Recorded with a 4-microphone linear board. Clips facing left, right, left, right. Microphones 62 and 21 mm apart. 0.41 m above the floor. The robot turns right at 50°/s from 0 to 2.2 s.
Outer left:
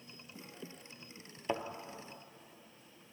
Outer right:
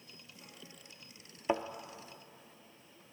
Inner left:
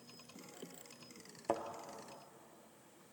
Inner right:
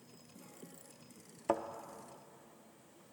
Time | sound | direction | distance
1.5 | a thud | 15° right (ahead or behind) | 0.5 m